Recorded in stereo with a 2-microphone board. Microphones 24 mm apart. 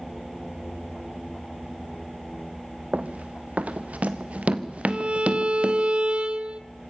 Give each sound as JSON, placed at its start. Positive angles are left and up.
{"t": 2.9, "sound": "running footsteps", "side_deg": -80, "distance_m": 1.8}
{"t": 4.9, "sound": "a violin", "side_deg": -50, "distance_m": 1.0}